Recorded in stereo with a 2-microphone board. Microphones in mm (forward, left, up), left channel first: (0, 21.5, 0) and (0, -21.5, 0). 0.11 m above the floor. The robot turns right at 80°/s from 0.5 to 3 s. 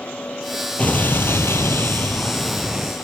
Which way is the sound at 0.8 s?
35° left.